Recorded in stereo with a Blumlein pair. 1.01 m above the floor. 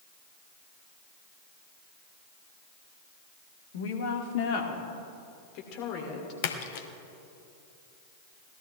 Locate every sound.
3.7 s a woman speaking: 55° left, 1.6 m; by 6.3 s 40° left, 3 m
6.4 s a splash: 50° left, 1.0 m